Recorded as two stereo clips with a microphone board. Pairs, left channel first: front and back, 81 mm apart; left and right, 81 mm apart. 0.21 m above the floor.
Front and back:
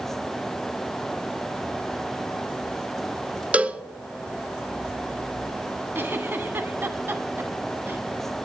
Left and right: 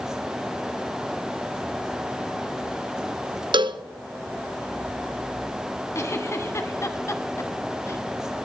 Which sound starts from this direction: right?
A cowbell, at 3.5 s.